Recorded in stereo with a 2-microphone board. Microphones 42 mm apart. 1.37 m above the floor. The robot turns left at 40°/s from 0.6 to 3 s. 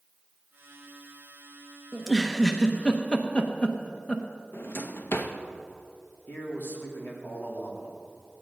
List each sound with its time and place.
1.9 s a giggle: 10° right (ahead or behind), 0.9 m; by 4.2 s 25° left (ahead or behind), 0.9 m
4.5 s a drawer: 55° left (ahead or behind), 0.8 m
6.3 s a man speaking: 45° left (ahead or behind), 2.5 m